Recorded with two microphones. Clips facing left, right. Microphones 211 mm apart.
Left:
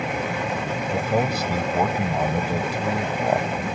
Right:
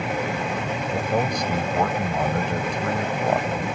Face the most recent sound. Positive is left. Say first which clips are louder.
# left 1 dB
turn(degrees=10)  # may be behind; listen again after turning